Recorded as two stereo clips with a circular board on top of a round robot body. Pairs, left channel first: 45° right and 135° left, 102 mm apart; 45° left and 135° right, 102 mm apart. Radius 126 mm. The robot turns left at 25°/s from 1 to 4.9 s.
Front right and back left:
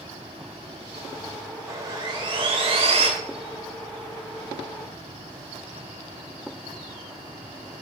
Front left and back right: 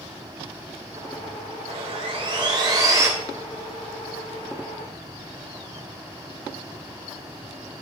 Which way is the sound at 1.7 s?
165° right.